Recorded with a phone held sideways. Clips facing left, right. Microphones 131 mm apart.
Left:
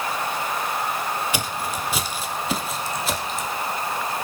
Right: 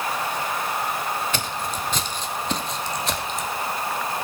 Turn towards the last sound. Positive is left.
turn(degrees=0)  # may be behind; listen again after turning